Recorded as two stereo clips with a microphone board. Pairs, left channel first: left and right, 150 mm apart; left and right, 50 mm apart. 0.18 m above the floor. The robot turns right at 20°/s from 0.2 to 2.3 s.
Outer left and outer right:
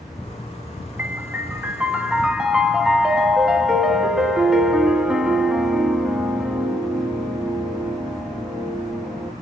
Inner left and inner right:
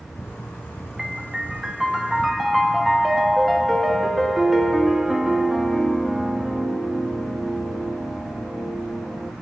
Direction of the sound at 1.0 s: 15° right (ahead or behind).